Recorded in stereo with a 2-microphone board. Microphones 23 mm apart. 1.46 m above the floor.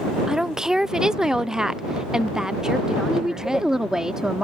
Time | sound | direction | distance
0.3 | a woman speaking | 25° right (ahead or behind) | ?
3.1 | a woman speaking | 20° right (ahead or behind) | ?